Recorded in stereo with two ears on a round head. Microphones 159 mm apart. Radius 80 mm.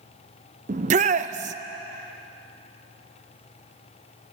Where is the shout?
40° right (ahead or behind), 0.5 m.